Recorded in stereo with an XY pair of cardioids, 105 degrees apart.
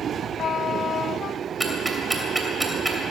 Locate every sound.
1.6 s ticking: 10° right, 2.5 m